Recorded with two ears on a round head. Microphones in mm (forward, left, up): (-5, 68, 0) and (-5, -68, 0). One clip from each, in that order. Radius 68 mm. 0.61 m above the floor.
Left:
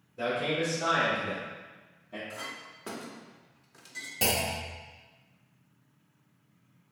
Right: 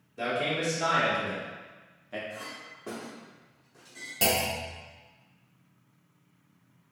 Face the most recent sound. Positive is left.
turn(degrees=-5)  # may be behind; listen again after turning